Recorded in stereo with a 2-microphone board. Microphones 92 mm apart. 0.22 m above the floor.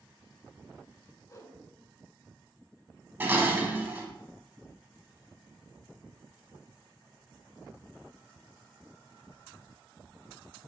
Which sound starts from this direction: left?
A whoosh, at 1.3 s.